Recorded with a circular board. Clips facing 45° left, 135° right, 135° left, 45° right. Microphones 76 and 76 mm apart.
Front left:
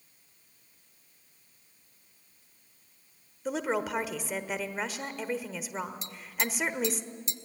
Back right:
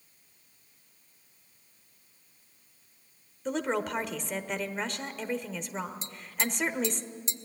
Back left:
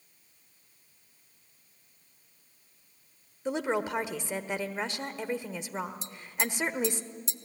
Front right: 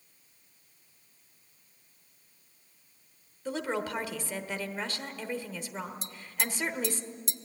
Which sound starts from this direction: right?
Tapping, at 6.0 s.